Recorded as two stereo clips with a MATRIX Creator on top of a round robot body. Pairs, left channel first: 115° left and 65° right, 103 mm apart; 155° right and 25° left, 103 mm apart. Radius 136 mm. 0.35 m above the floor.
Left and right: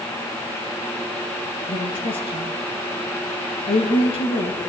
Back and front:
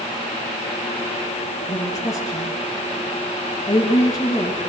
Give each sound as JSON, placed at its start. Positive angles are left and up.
{"t": 1.7, "sound": "a woman speaking", "azimuth_deg": 140, "distance_m": 9.0}